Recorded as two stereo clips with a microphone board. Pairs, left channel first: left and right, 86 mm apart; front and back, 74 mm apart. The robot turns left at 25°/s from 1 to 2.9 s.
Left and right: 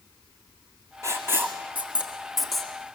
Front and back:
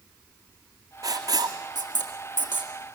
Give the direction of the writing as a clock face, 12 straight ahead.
5 o'clock.